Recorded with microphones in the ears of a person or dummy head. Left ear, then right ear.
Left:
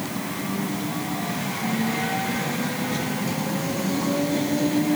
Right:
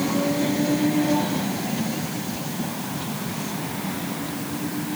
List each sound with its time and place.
Only background noise.